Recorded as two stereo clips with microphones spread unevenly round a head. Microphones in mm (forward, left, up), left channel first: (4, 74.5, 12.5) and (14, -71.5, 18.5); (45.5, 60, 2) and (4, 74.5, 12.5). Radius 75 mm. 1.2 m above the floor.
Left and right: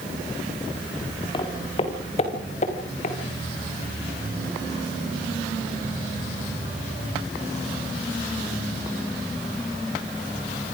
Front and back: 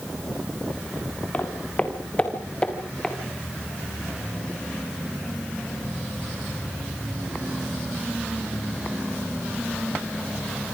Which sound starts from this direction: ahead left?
Footsteps, at 1.3 s.